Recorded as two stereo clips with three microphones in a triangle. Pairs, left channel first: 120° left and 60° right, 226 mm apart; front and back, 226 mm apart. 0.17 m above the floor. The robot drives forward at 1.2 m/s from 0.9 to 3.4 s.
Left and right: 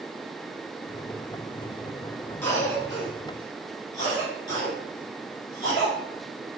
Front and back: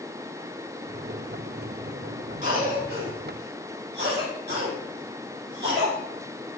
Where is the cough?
170° right, 2.0 m; by 6.0 s 175° right, 3 m.